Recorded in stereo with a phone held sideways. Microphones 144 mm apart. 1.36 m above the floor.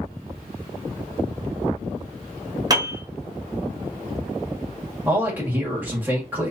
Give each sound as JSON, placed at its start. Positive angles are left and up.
{"t": 2.7, "sound": "a piano", "side_deg": -25, "distance_m": 1.0}
{"t": 5.0, "sound": "a man speaking", "side_deg": -15, "distance_m": 1.5}